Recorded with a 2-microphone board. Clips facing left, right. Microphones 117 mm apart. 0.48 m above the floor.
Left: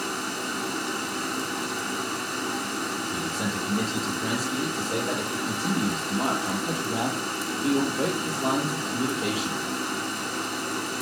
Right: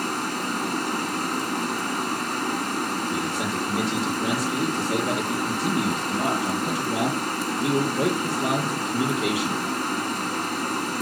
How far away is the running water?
About 1.5 m.